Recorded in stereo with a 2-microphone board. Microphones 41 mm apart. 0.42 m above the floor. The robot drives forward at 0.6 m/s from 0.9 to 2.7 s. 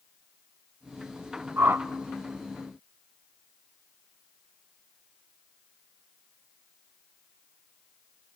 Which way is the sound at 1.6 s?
65° right (ahead or behind).